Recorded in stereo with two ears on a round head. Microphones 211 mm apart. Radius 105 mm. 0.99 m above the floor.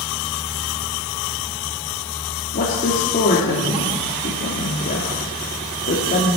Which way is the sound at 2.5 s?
40° left (ahead or behind).